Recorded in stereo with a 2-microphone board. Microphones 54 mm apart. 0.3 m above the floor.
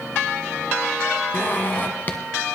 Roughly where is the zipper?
Left.